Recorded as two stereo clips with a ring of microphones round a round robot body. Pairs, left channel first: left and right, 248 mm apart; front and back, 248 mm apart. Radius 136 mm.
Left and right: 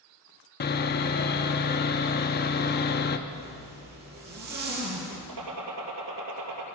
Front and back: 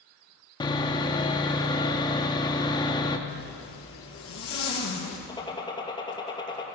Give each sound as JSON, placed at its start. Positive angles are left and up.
{"t": 0.6, "sound": "sawing", "azimuth_deg": 65, "distance_m": 0.8}
{"t": 3.3, "sound": "a zipper", "azimuth_deg": -35, "distance_m": 3.5}
{"t": 5.3, "sound": "a gunshot", "azimuth_deg": -70, "distance_m": 3.0}